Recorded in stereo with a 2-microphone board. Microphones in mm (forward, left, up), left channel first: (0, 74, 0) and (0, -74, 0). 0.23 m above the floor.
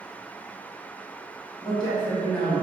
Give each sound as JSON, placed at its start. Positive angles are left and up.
{"t": 1.6, "sound": "a man speaking", "side_deg": 30, "distance_m": 1.2}